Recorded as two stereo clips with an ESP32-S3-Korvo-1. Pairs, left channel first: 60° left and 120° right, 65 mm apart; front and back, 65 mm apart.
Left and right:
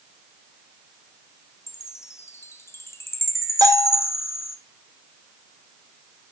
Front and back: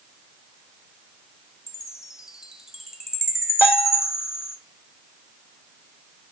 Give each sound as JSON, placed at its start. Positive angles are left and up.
{"t": 1.7, "sound": "a chime", "azimuth_deg": 100, "distance_m": 1.6}
{"t": 3.6, "sound": "a bell", "azimuth_deg": -115, "distance_m": 2.5}